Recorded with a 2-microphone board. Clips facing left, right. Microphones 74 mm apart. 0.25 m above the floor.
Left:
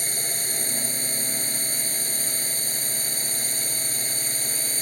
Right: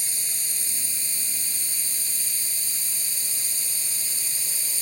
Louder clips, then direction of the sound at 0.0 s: Left 8 dB; 50° left (ahead or behind).